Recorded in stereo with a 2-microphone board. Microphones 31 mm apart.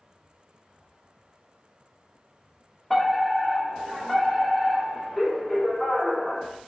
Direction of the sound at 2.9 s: 5° left (ahead or behind).